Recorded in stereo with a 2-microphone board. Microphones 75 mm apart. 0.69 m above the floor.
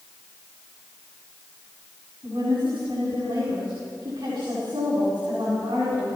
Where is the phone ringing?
I don't hear a phone ringing.